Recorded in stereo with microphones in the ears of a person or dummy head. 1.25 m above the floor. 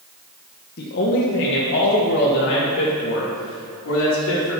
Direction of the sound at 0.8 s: 50° left (ahead or behind).